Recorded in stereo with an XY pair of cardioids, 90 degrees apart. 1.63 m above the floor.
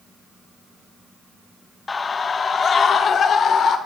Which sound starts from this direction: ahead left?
A scream, at 1.9 s.